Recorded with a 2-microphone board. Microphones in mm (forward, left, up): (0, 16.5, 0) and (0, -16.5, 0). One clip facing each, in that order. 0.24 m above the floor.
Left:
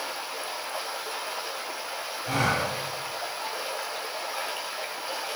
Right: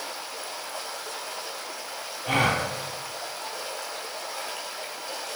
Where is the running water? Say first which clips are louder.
Left 2 dB; 15° left (ahead or behind), 5 m.